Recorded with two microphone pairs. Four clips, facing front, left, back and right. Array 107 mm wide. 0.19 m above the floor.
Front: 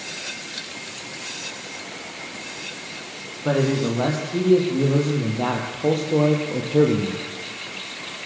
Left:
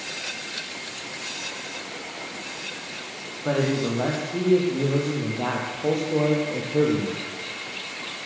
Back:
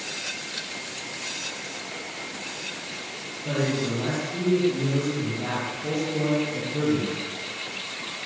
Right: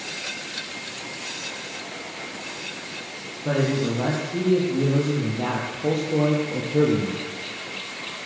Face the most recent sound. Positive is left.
turn(degrees=5)